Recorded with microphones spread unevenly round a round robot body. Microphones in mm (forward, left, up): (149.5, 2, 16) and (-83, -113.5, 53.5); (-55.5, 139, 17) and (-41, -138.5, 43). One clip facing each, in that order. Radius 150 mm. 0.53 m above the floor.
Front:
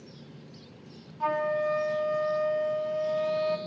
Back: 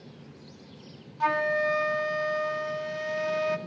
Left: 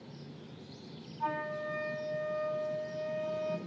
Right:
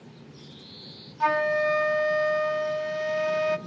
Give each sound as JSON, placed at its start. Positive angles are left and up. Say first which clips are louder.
{"t": 1.2, "sound": "a flute", "louder": "even, right 13 dB", "azimuth_deg": -90, "distance_m": 0.6}